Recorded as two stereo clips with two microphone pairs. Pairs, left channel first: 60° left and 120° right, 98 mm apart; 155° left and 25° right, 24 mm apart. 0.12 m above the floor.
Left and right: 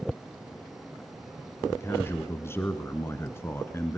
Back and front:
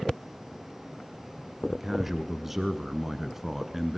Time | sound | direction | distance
1.7 | a man speaking | 35° left | 1.1 m